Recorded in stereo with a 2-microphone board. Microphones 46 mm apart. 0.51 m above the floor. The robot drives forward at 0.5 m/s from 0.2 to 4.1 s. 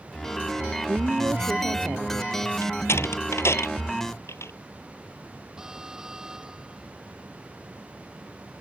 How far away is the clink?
I don't hear a clink.